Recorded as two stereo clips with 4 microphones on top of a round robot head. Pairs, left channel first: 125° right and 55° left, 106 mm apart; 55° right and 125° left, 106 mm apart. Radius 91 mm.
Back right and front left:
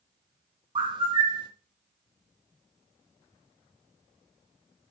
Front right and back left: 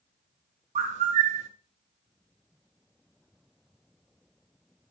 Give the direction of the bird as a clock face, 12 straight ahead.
8 o'clock.